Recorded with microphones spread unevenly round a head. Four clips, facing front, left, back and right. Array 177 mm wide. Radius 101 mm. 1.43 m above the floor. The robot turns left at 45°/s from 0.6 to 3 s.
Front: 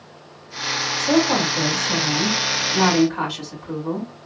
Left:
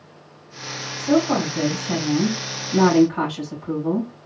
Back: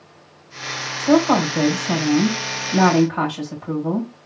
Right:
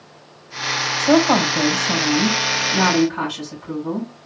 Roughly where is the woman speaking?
Right.